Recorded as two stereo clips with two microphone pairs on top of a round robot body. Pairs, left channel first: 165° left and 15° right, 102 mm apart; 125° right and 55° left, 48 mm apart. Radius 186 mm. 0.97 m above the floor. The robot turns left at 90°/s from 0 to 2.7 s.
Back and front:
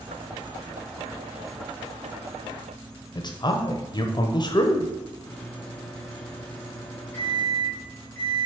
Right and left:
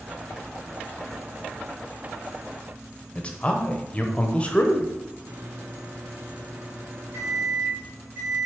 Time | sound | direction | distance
3.1 | a man speaking | 175° left | 1.0 m
5.3 | a microwave | 95° left | 2 m